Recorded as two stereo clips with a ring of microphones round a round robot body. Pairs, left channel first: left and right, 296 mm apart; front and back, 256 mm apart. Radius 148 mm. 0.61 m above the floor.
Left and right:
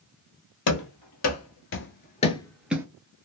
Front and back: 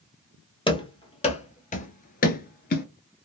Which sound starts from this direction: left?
Running footsteps, at 0.7 s.